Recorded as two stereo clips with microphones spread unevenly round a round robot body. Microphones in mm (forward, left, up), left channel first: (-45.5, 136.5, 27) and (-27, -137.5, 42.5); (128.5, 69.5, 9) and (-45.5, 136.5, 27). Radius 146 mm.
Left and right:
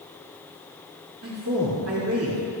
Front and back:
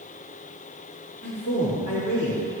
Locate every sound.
1.2 s a man speaking: 50° right, 2.5 m